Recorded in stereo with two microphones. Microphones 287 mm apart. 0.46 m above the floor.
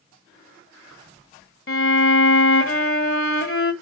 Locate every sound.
1.7 s a violin: 50° left (ahead or behind), 1.2 m